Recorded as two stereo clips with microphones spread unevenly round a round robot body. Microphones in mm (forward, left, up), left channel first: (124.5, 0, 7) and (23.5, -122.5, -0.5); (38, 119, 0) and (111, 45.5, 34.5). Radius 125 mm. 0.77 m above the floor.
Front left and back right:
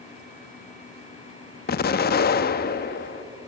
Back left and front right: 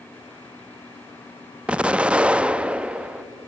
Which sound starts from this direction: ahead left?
An explosion, at 1.7 s.